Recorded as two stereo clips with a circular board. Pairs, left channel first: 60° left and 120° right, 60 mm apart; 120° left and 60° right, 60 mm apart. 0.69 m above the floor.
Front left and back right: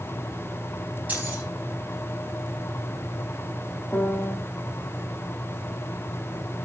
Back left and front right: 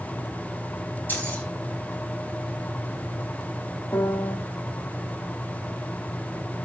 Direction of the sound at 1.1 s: 175° left.